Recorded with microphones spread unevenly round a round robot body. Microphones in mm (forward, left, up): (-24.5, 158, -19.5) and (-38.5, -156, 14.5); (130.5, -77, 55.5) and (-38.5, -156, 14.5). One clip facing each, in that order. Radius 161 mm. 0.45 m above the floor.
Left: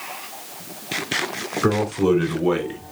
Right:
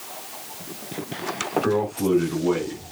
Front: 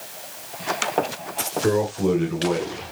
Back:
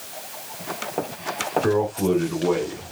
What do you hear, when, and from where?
1.6 s a man speaking: 110° left, 4 m